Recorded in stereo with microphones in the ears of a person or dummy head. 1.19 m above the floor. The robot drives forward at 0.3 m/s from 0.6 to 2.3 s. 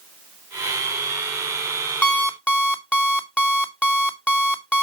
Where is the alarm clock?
5° left (ahead or behind), 0.5 m.